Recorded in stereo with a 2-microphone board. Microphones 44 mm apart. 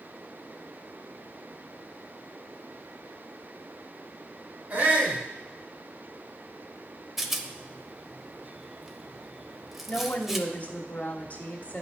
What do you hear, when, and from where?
4.7 s a shout: 50° right (ahead or behind), 2 m
7.2 s a rattle: 5° right (ahead or behind), 0.6 m
9.9 s a woman speaking: 40° left (ahead or behind), 1.2 m